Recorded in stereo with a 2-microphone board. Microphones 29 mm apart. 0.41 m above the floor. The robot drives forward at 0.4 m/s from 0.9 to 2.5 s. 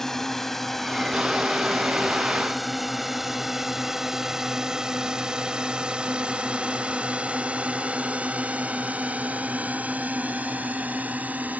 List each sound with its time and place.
0.0 s a drone: 15° left (ahead or behind); by 11.6 s 65° right (ahead or behind)